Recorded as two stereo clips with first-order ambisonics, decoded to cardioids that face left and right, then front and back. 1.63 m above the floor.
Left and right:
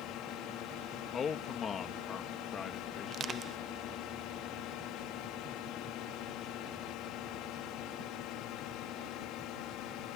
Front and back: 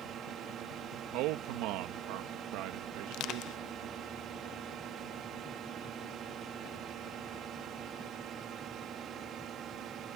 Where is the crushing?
30° right.